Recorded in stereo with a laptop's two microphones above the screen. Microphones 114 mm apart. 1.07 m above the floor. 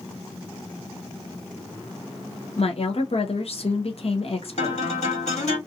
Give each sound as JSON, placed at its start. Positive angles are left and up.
{"t": 2.6, "sound": "a woman speaking", "side_deg": 60, "distance_m": 0.6}
{"t": 4.6, "sound": "a guitar", "side_deg": 80, "distance_m": 1.5}